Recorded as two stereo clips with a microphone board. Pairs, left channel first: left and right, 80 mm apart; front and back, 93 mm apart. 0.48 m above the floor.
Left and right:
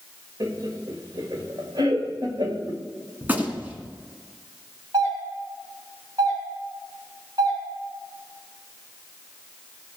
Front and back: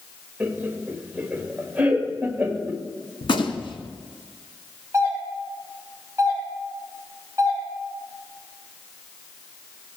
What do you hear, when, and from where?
0.4 s laughter: 110° right, 1.5 m
3.2 s a gunshot: 25° right, 1.4 m
4.9 s a doorbell: 125° right, 5 m